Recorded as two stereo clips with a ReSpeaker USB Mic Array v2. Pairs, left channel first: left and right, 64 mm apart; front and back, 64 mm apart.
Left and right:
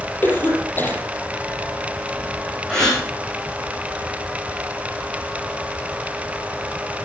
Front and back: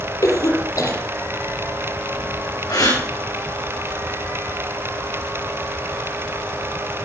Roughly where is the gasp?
Ahead.